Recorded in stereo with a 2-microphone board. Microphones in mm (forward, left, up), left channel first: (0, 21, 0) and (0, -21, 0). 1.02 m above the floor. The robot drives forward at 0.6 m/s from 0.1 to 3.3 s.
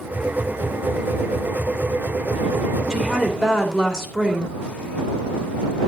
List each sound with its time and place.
2.9 s a woman speaking: 15° left (ahead or behind), 3 m; by 4.5 s 10° left (ahead or behind), 3 m